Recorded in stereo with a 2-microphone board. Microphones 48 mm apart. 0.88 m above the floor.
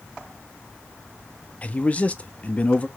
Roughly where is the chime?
I don't hear a chime.